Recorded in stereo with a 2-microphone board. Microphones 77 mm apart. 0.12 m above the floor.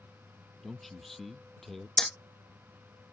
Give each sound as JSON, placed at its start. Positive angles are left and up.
{"t": 0.6, "sound": "a man speaking", "side_deg": 5}
{"t": 2.0, "sound": "hammering", "side_deg": 5}